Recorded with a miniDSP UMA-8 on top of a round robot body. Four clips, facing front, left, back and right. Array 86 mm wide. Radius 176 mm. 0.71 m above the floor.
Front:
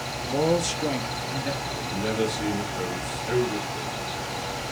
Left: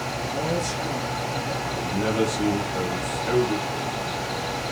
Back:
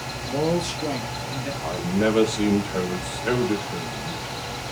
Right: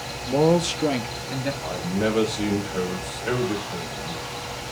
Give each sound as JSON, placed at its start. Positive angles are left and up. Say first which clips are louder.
{"t": 0.2, "sound": "a man speaking", "louder": "right 9 dB, even", "azimuth_deg": -75, "distance_m": 1.2}
{"t": 1.6, "sound": "a man speaking", "louder": "right 2 dB, back 6 dB", "azimuth_deg": -170, "distance_m": 3.5}